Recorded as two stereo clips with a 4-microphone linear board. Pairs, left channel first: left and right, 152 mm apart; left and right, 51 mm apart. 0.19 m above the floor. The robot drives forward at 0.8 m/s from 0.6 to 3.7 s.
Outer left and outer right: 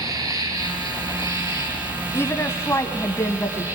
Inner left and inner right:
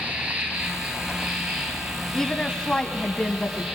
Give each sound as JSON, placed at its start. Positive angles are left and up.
{"t": 0.0, "sound": "an insect", "side_deg": -25, "distance_m": 4.0}
{"t": 2.1, "sound": "a woman speaking", "side_deg": 15, "distance_m": 1.2}